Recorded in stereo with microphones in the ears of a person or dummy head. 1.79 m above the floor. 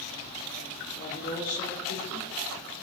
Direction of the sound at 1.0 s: 70° left (ahead or behind).